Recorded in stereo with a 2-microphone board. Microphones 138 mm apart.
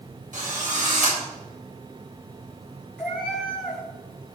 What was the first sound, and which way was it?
A drill, 65° right (ahead or behind).